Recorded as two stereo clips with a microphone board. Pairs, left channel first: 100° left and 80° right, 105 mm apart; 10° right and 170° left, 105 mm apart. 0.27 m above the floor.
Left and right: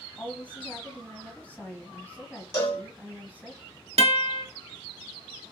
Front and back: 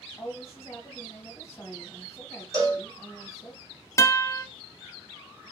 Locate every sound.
0.2 s a woman speaking: 35° left, 1.5 m
2.5 s a cowbell: 130° left, 1.9 m
4.0 s a guitar: 75° right, 0.6 m